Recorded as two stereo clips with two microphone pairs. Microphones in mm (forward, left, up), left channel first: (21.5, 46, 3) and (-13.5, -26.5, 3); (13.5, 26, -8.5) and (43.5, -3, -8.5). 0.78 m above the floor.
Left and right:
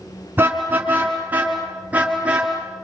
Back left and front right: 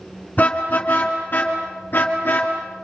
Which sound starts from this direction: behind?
A car horn, at 0.4 s.